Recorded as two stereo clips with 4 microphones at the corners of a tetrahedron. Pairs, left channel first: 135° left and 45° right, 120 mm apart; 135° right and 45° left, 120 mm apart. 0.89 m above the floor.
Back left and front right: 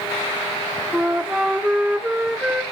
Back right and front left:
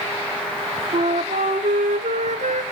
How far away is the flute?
About 1.3 m.